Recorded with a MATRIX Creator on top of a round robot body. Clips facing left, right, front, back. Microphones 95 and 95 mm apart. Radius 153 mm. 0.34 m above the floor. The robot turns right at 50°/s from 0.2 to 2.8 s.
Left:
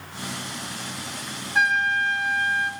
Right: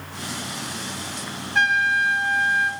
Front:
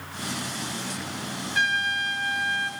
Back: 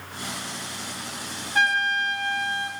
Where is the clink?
No clink in this recording.